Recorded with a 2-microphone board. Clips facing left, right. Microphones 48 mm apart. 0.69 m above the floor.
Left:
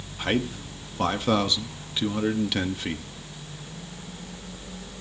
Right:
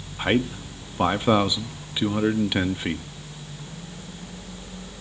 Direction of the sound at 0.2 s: 20° right (ahead or behind).